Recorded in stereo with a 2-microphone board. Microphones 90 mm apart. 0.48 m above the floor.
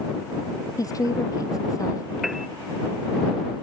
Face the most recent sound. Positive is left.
turn(degrees=-5)  # may be behind; listen again after turning